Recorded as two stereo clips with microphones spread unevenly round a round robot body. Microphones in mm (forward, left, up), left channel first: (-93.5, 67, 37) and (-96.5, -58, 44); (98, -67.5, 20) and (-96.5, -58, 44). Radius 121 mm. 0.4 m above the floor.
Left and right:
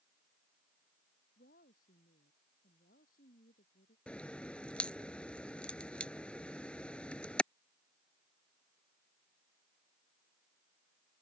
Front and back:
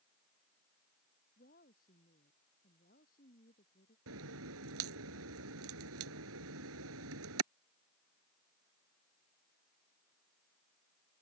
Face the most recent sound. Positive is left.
turn(degrees=170)